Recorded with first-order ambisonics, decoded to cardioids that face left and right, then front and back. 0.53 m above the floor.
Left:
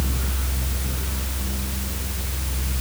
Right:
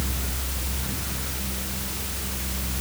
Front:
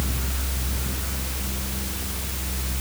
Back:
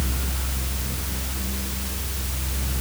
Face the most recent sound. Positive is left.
No sound to turn to.